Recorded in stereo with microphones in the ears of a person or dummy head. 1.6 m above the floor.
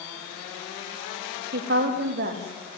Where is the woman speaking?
55° right (ahead or behind), 3 m.